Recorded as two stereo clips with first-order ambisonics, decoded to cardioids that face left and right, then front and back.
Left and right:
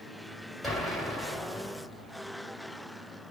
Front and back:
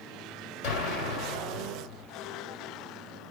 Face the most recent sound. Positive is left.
turn(degrees=5)